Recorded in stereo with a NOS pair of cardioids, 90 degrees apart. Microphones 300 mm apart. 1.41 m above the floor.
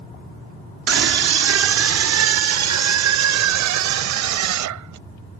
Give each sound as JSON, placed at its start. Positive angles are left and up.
{"t": 0.9, "sound": "a scream", "azimuth_deg": -55}